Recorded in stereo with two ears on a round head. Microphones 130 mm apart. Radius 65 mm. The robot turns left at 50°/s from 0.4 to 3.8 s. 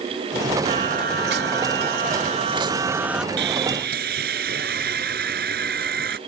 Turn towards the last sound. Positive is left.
turn(degrees=-80)